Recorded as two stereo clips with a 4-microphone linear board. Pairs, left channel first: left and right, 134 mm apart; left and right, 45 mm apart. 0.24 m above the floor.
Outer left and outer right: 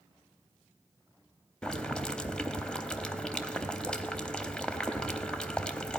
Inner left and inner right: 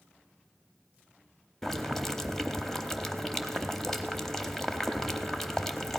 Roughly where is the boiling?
Centre.